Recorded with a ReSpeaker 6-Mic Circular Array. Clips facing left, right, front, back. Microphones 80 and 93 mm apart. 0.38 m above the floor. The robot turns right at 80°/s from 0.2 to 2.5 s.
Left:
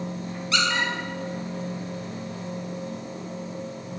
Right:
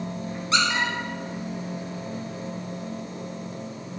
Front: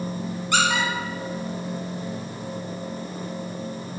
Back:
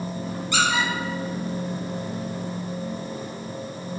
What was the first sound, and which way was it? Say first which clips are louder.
A squeak: right 1 dB, front 1 dB; 30° right.